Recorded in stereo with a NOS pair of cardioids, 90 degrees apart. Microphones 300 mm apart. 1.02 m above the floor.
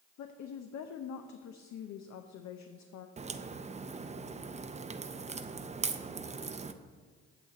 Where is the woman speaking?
65° left, 0.7 m.